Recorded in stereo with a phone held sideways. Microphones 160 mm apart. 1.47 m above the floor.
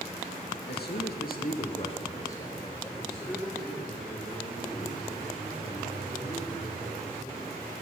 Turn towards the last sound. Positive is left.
turn(degrees=-20)  # may be behind; listen again after turning